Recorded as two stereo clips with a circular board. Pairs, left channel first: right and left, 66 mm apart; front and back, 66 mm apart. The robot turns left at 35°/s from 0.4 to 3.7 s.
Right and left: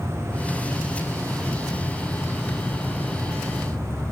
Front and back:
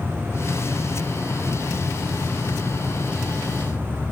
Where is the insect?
70° left, 0.7 m; by 4.1 s 45° right, 0.7 m.